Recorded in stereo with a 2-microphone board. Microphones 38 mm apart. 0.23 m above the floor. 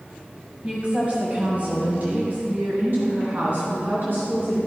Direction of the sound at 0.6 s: 30° right (ahead or behind).